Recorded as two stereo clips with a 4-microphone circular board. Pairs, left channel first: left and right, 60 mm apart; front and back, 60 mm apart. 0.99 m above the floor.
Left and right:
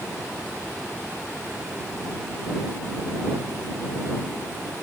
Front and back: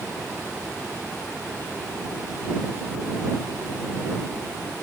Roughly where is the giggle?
No giggle in this recording.